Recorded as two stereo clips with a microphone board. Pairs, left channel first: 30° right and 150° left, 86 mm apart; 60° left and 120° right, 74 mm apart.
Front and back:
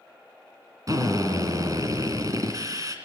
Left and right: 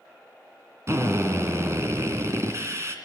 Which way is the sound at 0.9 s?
170° right.